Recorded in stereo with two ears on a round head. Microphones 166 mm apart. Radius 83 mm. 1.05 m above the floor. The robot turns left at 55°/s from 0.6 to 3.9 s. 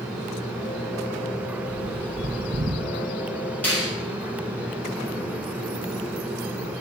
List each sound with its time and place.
1.7 s a bird: 35° left (ahead or behind), 1.7 m; by 2.9 s 30° right (ahead or behind), 1.7 m
3.6 s a finger snap: 10° left (ahead or behind), 5.5 m; by 3.9 s 5° right (ahead or behind), 5.5 m